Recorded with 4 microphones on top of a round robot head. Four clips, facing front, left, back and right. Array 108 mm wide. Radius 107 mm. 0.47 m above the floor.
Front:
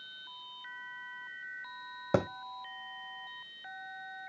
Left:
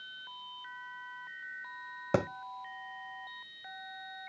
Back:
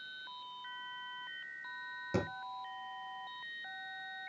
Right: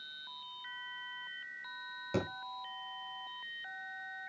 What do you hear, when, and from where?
2.1 s a thud: 40° left, 1.1 m